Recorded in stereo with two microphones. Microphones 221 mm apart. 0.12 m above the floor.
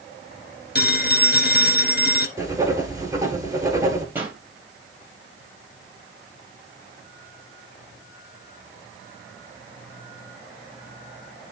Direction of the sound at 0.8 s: 45° left (ahead or behind).